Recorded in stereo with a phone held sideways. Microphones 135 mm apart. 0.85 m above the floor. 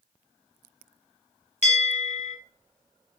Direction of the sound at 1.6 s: 55° left (ahead or behind).